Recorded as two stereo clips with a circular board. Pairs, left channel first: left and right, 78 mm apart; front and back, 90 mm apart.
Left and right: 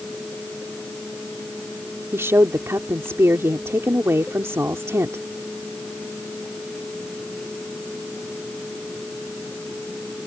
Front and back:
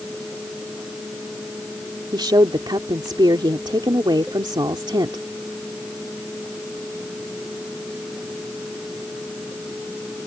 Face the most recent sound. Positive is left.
turn(degrees=-145)